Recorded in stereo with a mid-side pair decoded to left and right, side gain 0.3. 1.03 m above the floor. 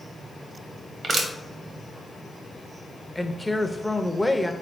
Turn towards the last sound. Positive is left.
turn(degrees=5)